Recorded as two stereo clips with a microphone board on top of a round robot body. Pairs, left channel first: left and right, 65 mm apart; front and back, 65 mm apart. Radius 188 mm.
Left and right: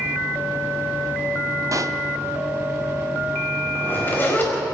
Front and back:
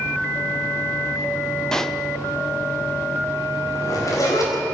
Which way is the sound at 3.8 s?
30° left.